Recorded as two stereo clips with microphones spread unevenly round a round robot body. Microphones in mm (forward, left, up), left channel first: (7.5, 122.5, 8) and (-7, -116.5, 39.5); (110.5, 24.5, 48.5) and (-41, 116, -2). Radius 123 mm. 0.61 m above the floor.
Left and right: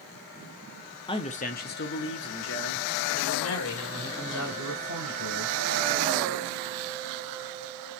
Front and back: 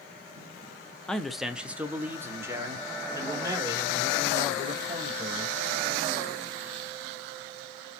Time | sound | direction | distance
1.1 | a man speaking | 85° left | 0.6 m